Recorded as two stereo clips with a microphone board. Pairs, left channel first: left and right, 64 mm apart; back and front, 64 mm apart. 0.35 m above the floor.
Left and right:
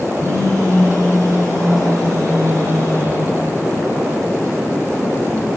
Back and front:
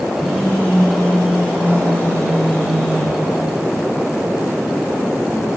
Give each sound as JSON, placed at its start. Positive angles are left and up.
{"t": 0.2, "sound": "a phone buzzing", "azimuth_deg": -115, "distance_m": 10.0}